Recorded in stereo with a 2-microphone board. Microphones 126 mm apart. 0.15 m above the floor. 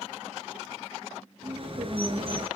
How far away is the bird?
About 2.5 m.